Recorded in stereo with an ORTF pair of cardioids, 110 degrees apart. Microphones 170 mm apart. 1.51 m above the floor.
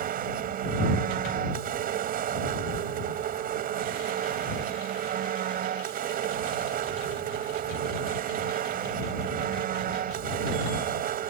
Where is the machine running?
60° right.